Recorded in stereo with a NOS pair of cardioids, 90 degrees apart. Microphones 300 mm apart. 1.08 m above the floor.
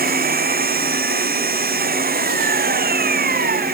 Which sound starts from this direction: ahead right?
An engine running, at 0.0 s.